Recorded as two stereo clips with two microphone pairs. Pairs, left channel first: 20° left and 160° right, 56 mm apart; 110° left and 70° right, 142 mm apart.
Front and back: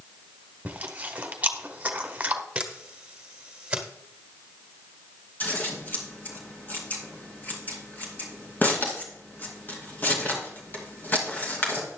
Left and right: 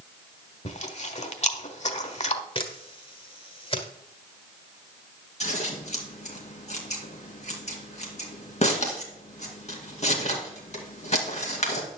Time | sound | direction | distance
0.7 | chewing | 140° left | 1.3 m
2.5 | a camera shutter | 135° left | 1.6 m
5.4 | scissors | 75° left | 2.5 m